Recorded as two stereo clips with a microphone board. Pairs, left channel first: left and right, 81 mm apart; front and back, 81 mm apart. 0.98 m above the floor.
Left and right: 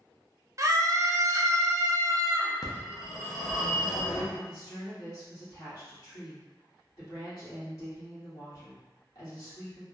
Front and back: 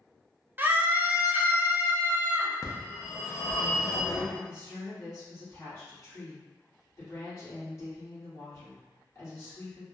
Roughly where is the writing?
I don't hear writing.